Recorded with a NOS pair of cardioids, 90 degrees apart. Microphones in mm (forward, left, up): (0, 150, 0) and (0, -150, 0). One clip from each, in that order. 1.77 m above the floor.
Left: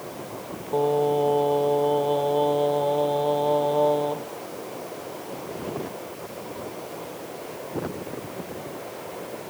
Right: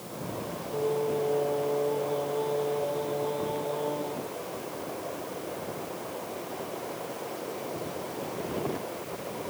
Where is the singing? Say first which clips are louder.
Left 7 dB; 55° left, 0.7 m.